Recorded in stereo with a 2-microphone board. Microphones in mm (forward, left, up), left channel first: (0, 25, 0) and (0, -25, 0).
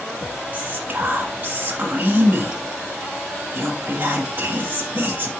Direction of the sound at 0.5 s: 35° right (ahead or behind).